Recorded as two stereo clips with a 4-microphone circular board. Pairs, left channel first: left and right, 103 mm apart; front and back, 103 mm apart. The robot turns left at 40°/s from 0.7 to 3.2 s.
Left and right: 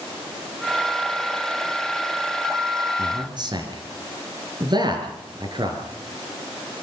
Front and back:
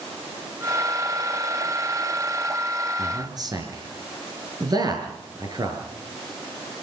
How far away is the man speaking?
About 5 m.